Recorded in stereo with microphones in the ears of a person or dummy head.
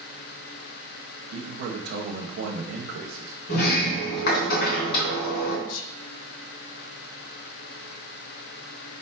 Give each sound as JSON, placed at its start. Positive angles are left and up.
{"t": 1.3, "sound": "a man speaking", "side_deg": -50, "distance_m": 1.2}
{"t": 3.5, "sound": "a sliding door", "side_deg": 60, "distance_m": 3.0}
{"t": 5.7, "sound": "whispering", "side_deg": 75, "distance_m": 0.7}